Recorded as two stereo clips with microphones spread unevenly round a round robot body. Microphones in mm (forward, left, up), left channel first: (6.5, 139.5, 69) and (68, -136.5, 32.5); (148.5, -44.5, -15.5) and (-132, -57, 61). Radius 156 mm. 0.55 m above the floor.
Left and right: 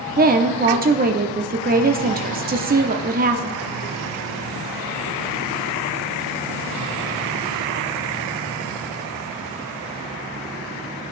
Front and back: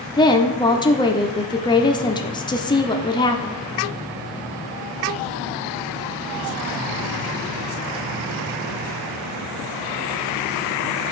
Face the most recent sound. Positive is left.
turn(degrees=-45)